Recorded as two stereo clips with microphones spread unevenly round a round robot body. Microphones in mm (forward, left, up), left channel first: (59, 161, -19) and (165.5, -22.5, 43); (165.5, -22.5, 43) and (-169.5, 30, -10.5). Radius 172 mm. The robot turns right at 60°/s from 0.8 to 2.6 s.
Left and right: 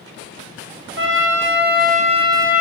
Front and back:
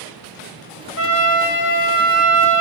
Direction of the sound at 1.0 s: 60° right.